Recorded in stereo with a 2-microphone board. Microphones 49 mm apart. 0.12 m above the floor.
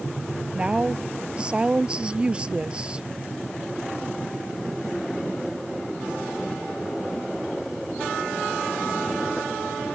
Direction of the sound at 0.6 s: 25° right (ahead or behind).